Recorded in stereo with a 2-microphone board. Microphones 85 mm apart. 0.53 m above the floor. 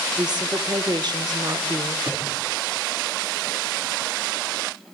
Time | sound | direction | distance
0.2 | a woman speaking | 55° right (ahead or behind) | 1.3 m
2.1 | a cupboard door | 30° right (ahead or behind) | 6.5 m